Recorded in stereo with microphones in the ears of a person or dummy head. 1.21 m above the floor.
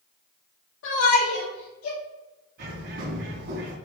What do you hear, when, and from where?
0.8 s a shout: 75° left (ahead or behind), 2.5 m; by 2.0 s 65° left (ahead or behind), 2.5 m
2.6 s a bird: 60° right (ahead or behind), 2.5 m